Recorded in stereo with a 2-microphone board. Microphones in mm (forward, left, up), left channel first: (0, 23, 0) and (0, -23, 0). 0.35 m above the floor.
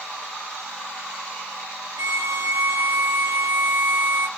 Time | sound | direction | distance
2.0 | a violin | 70° right (ahead or behind) | 1.3 m